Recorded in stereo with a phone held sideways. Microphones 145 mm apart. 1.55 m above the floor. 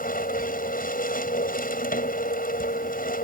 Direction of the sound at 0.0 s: 80° left.